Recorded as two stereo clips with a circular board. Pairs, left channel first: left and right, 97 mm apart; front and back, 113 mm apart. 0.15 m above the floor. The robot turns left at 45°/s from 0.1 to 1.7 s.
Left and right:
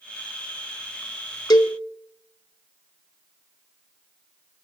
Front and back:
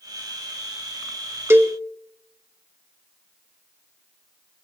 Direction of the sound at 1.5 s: 120° left.